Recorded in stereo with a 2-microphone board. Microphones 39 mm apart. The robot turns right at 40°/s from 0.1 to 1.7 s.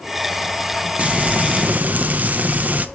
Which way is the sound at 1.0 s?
35° right (ahead or behind).